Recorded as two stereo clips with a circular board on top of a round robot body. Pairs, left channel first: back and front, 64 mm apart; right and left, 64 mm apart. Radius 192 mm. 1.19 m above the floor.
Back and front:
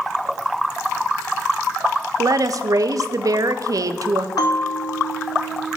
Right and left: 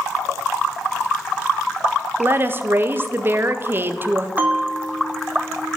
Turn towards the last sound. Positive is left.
turn(degrees=150)